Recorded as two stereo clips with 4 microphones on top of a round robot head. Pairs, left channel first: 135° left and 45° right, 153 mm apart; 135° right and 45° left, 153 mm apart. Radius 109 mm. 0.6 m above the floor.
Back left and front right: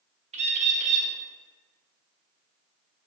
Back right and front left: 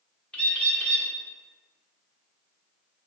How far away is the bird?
About 1.4 m.